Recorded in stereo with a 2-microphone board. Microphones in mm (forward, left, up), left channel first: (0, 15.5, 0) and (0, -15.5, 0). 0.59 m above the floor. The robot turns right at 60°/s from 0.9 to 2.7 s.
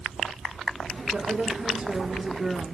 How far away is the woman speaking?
About 1.1 m.